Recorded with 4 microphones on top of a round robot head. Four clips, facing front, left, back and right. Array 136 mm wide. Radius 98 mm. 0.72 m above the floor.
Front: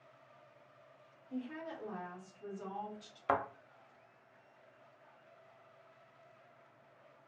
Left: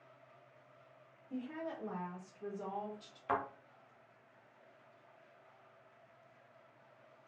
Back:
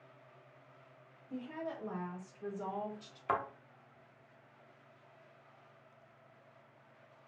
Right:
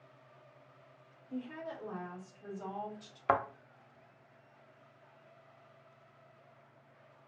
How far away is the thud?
About 0.6 m.